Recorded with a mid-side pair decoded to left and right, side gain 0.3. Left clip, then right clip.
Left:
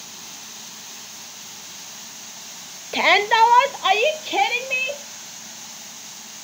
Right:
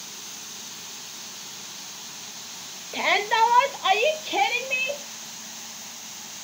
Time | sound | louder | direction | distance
2.9 | a shout | left 6 dB | 70° left | 0.7 m